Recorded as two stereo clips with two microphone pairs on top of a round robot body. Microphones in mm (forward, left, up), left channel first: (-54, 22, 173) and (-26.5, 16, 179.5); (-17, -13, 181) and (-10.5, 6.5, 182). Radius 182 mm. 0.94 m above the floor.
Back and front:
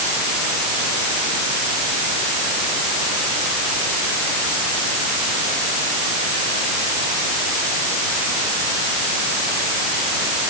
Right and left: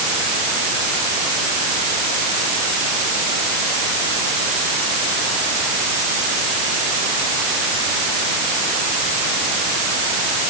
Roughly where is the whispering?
No whispering in this recording.